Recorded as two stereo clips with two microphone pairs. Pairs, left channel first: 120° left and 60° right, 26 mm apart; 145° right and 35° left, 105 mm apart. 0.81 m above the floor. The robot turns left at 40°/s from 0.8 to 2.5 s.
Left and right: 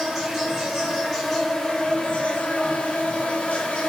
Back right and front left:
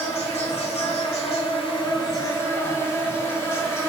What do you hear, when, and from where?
0.0 s an insect: 140° right, 0.9 m; by 3.9 s 150° left, 0.9 m